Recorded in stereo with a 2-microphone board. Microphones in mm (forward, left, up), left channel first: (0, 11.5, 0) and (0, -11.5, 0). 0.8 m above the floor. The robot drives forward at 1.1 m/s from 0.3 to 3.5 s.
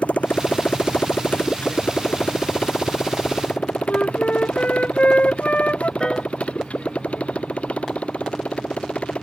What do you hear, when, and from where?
0.0 s a motorcycle: 80° left; by 9.2 s 65° left (ahead or behind)
3.9 s a flute: 70° left (ahead or behind)
6.0 s a piano: 30° left (ahead or behind)